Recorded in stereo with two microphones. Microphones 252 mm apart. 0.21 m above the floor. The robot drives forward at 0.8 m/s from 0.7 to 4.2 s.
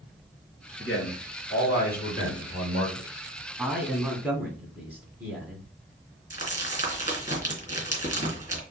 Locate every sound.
0.8 s a man speaking: 50° left (ahead or behind), 2.5 m; by 3.1 s 30° left (ahead or behind), 4 m
3.6 s a man speaking: 10° right (ahead or behind), 1.6 m; by 5.7 s 5° right (ahead or behind), 1.9 m
6.3 s crumpling: 30° left (ahead or behind), 3 m